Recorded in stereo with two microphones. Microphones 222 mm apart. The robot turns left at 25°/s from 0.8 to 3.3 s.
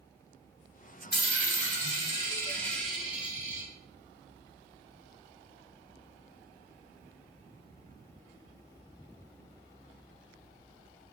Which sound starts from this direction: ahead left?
A dropped coin, at 1.1 s.